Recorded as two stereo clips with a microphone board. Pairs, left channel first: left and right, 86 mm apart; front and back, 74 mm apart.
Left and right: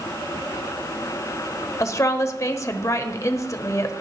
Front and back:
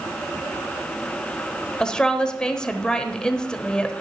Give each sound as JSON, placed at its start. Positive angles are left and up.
{"t": 1.8, "sound": "a woman speaking", "azimuth_deg": 75, "distance_m": 1.0}